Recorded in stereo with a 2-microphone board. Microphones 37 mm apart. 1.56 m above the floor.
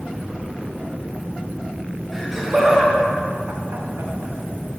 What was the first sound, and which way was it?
Laughter, 5° right (ahead or behind).